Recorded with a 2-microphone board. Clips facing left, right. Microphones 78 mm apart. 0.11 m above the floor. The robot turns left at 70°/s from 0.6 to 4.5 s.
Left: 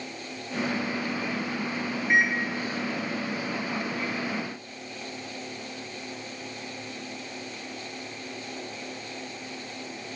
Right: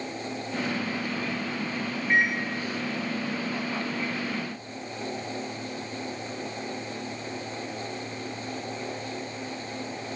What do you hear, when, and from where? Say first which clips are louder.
2.1 s a microwave: left 1 dB; 15° left (ahead or behind), 1.4 m; by 2.4 s centre (ahead or behind), 1.4 m